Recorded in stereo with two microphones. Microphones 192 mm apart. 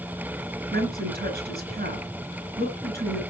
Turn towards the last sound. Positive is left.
turn(degrees=-55)  # may be behind; listen again after turning